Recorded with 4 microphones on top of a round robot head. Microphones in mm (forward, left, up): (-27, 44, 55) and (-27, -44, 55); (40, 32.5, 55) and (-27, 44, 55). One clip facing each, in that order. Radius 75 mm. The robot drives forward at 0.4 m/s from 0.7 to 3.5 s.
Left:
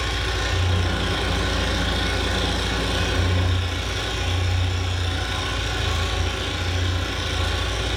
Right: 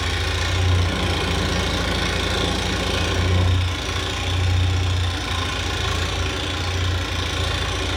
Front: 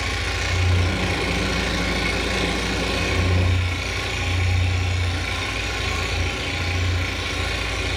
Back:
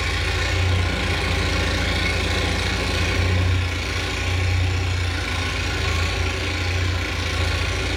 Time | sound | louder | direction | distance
0.0 | an engine running | right 1 dB, back 1 dB | 100° right | 4.5 m